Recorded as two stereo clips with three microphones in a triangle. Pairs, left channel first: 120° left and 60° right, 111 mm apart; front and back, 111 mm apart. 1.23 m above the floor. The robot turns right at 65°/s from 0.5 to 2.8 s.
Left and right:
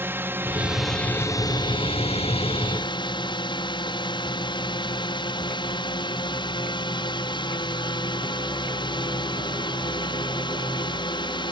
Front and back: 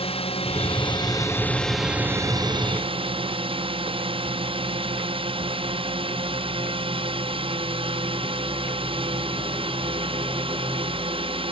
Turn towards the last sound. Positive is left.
turn(degrees=160)